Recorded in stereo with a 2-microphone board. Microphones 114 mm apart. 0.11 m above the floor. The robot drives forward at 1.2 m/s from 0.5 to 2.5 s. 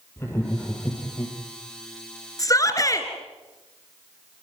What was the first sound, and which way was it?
Laughter, 20° left (ahead or behind).